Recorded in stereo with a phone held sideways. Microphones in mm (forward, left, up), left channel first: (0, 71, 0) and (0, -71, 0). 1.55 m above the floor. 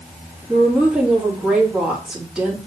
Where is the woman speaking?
5° right (ahead or behind), 3 m.